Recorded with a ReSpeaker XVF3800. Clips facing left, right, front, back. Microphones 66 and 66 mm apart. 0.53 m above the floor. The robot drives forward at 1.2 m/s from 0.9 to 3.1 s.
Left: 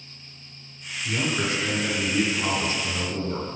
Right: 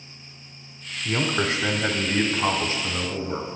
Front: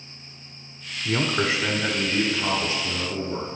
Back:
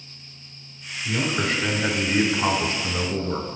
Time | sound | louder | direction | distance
1.1 | a man speaking | right 2 dB, front 1 dB | 40° right | 1.2 m